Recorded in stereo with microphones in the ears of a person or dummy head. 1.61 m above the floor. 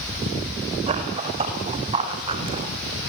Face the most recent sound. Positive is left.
turn(degrees=-35)  # may be behind; listen again after turning